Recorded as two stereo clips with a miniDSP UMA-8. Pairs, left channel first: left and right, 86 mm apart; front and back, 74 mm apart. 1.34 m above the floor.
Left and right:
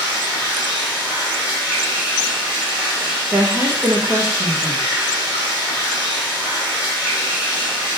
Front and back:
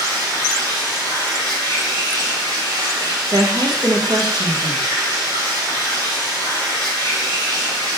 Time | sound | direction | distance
0.0 | running water | 170° right | 2.5 m
3.3 | a woman speaking | 150° right | 1.1 m